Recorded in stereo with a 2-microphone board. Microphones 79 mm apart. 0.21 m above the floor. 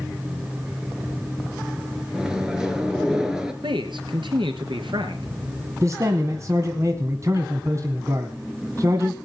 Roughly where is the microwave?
Centre.